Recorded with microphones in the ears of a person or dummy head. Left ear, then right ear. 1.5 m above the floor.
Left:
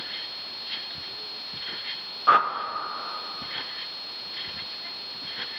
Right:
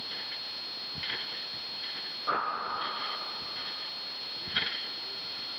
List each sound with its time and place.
2.3 s a whoosh: 45° left (ahead or behind), 0.6 m